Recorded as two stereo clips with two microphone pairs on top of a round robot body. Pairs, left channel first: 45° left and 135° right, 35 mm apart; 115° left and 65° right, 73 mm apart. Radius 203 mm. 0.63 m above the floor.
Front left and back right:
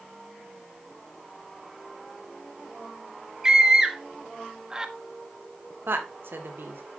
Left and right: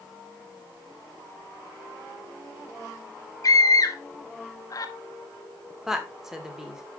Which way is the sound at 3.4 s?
150° left.